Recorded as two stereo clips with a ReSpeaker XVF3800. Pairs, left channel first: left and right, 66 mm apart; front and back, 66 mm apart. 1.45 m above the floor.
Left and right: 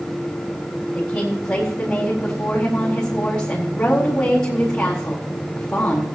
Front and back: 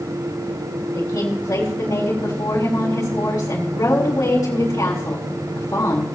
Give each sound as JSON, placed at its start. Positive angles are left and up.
{"t": 0.9, "sound": "a woman speaking", "azimuth_deg": 15, "distance_m": 4.0}